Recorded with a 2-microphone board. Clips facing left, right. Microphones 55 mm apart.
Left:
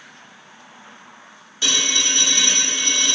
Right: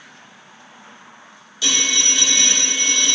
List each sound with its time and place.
1.6 s a phone ringing: 35° left (ahead or behind), 1.3 m